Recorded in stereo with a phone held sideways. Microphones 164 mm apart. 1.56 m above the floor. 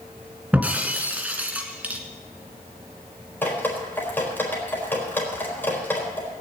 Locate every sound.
0.5 s breaking glass: 10° right (ahead or behind), 1.9 m
3.4 s dripping: 15° left (ahead or behind), 4 m